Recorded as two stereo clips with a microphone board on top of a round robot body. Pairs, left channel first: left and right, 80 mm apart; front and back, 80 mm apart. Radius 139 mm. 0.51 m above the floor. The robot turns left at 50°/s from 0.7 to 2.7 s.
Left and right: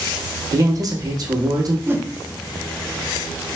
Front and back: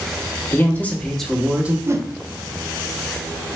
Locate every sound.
0.5 s a man speaking: 60° right, 1.3 m; by 1.8 s 110° right, 1.3 m
1.9 s a whoosh: 135° right, 0.8 m; by 2.1 s 145° right, 0.8 m